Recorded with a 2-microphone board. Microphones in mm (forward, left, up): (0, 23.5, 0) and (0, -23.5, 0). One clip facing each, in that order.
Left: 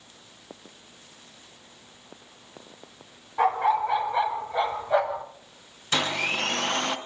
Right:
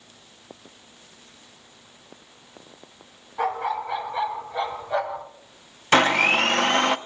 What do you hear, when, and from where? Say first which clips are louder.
3.4 s a dog barking: left 4 dB; 25° left (ahead or behind), 3 m; by 5.2 s 15° left (ahead or behind), 1.5 m
5.9 s a blender: right 9 dB; 55° right (ahead or behind), 0.7 m